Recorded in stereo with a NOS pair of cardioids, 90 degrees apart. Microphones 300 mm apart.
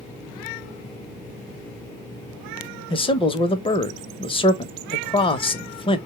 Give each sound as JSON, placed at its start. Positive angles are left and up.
{"t": 2.9, "sound": "a man speaking", "azimuth_deg": 15, "distance_m": 0.9}